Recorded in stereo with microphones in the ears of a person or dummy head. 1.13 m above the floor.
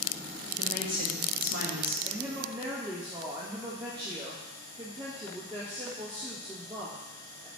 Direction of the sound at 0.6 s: 45° right (ahead or behind).